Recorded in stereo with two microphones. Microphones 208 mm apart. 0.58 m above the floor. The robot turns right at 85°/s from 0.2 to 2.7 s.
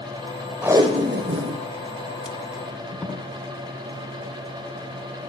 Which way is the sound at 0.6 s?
5° right (ahead or behind).